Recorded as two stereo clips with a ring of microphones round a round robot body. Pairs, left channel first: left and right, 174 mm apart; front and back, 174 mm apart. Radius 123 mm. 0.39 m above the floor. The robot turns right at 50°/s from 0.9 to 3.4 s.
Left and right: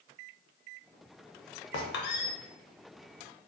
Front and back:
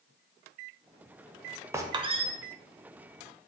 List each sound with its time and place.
1.7 s a squeak: 105° left, 0.6 m; by 2.3 s 135° left, 0.6 m